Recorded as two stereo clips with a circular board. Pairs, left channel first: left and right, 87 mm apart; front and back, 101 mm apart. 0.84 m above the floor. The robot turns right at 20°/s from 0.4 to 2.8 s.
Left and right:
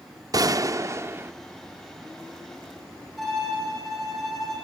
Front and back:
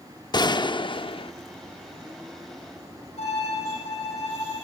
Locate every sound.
0.3 s a gunshot: 45° right, 0.7 m; by 1.3 s 25° right, 0.7 m
3.2 s a violin: straight ahead, 9 m